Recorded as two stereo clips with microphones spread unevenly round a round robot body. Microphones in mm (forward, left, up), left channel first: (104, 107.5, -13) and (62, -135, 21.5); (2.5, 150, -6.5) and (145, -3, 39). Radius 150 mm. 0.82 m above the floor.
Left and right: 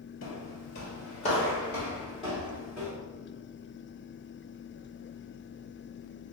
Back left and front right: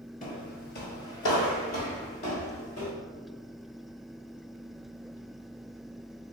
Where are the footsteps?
85° left, 1.0 m; by 2.9 s 175° right, 1.8 m.